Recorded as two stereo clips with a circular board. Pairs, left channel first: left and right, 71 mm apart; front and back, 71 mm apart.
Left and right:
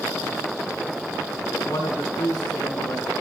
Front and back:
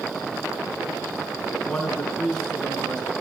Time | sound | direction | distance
1.7 | a man speaking | 80° left | 7 m